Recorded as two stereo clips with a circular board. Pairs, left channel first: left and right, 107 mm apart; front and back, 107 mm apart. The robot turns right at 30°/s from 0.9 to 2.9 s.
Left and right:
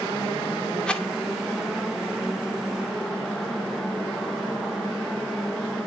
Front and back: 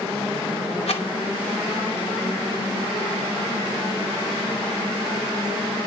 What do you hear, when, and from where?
0.9 s a rattle: 10° left, 2.5 m; by 1.1 s 15° left, 2.5 m